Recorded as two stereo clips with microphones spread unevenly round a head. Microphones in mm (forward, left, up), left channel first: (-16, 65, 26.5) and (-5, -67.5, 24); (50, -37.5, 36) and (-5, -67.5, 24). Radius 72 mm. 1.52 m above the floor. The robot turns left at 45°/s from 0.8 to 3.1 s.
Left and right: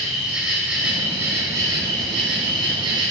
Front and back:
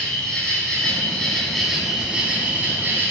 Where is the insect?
5° right, 1.5 m; by 3.1 s 110° right, 1.5 m.